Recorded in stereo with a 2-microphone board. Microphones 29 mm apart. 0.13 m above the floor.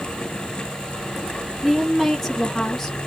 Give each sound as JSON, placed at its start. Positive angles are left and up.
{"t": 1.6, "sound": "a woman speaking", "side_deg": 5, "distance_m": 1.1}